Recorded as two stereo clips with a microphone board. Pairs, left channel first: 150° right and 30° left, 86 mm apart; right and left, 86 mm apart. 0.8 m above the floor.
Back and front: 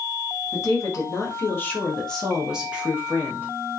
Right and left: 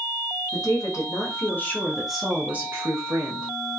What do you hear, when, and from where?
0.5 s a woman speaking: 115° right, 1.3 m; by 3.5 s 80° left, 1.1 m